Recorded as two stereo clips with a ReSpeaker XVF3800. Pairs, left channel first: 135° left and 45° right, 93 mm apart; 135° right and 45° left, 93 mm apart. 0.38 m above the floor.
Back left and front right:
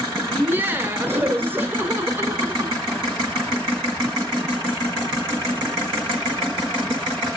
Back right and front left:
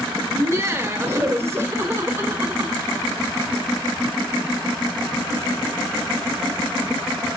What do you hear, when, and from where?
0.3 s laughter: 5° left, 1.5 m